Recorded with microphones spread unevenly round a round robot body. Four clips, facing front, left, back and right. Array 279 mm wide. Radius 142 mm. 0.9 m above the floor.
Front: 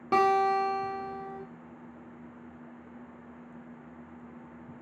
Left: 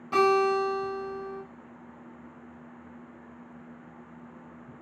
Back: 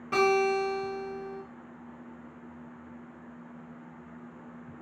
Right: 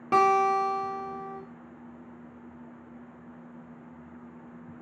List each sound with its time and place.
0.1 s a guitar: 40° right, 0.8 m